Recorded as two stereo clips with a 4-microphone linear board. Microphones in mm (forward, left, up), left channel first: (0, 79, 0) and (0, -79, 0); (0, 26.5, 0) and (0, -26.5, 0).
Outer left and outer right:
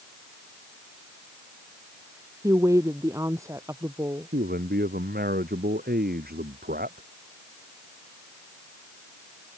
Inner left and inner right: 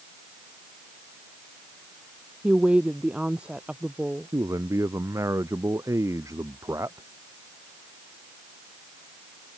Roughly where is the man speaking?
Right.